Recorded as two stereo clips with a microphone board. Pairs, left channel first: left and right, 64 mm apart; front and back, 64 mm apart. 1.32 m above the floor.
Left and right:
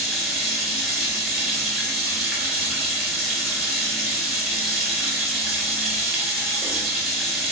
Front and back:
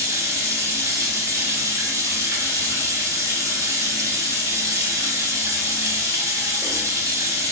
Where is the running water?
175° right, 1.0 m.